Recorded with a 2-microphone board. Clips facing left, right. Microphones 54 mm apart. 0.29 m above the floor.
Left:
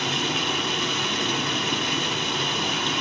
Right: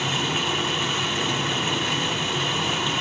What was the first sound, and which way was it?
Running water, 10° right (ahead or behind).